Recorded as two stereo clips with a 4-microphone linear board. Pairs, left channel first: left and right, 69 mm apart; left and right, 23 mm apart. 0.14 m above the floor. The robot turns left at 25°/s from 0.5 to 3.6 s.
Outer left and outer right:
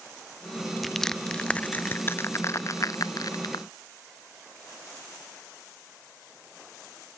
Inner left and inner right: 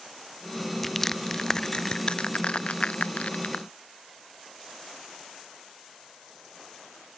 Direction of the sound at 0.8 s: Centre (ahead or behind).